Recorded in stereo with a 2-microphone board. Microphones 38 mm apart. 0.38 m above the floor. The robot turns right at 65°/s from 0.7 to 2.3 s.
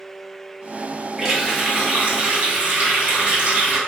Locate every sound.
1.2 s a running tap: 170° right, 1.0 m; by 3.8 s 95° right, 1.0 m